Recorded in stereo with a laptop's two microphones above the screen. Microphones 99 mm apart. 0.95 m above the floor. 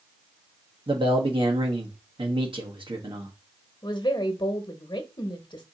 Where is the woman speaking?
55° left (ahead or behind), 1.0 m.